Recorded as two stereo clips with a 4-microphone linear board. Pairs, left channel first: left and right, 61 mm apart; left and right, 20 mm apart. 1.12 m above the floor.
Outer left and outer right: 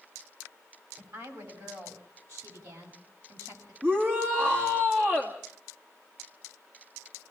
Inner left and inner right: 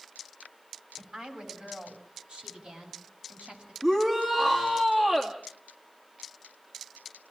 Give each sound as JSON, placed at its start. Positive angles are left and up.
{"t": 1.0, "sound": "a woman speaking", "side_deg": -60, "distance_m": 6.5}
{"t": 3.8, "sound": "a shout", "side_deg": -40, "distance_m": 2.0}